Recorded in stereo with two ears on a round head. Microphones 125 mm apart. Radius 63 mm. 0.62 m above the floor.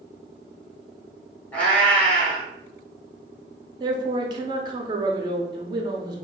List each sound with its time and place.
1.5 s a cat meowing: 10° left (ahead or behind), 1.2 m
3.8 s a man speaking: 30° right (ahead or behind), 0.8 m